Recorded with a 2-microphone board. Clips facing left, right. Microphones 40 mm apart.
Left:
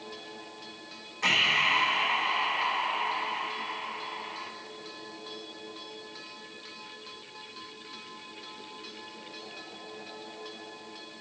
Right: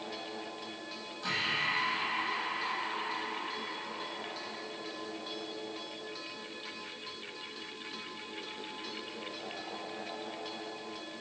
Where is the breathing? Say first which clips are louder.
Left 8 dB; 90° left, 0.8 m.